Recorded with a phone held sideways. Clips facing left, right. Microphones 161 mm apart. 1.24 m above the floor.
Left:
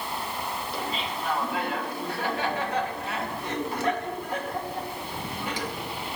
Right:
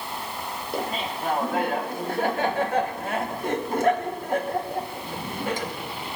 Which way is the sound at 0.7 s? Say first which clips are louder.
Right 7 dB; 50° right (ahead or behind).